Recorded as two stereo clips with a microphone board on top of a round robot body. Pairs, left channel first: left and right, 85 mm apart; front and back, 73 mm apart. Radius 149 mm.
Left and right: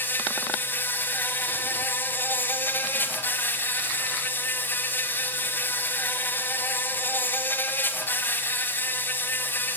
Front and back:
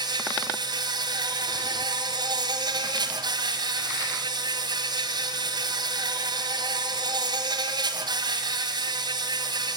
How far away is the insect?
About 1.4 m.